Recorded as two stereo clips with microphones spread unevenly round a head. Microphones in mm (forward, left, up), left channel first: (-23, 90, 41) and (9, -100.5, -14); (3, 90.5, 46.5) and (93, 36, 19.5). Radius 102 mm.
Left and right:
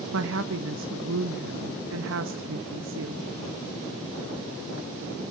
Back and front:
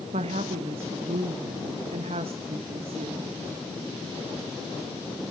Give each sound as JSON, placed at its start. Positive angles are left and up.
{"t": 0.1, "sound": "a woman speaking", "azimuth_deg": -70, "distance_m": 1.2}